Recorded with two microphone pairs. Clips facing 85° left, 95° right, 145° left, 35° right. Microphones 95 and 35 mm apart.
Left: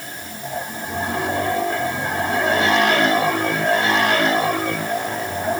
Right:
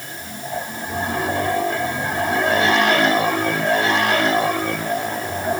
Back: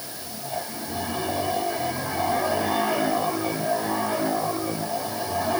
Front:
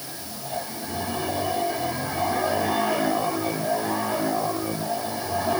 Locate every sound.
Only background noise.